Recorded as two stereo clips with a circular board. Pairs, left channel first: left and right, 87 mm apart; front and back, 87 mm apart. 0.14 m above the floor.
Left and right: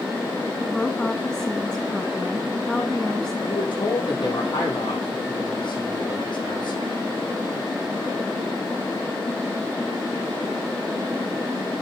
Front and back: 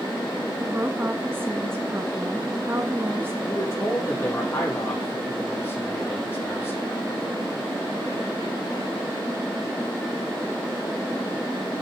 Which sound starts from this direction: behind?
A woman speaking, at 0.6 s.